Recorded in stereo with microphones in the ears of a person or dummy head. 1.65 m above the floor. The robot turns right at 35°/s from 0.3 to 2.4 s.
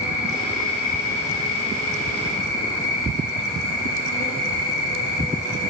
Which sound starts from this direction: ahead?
An insect, at 0.0 s.